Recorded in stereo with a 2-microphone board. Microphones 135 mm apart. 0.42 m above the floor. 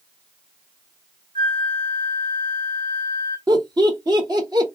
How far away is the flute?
About 1.8 m.